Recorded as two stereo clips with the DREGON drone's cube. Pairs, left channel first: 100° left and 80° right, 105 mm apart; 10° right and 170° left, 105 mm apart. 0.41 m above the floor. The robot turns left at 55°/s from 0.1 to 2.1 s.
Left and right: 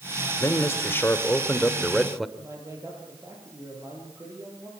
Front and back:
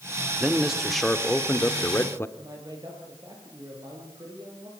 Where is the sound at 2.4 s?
140° right, 9.5 m.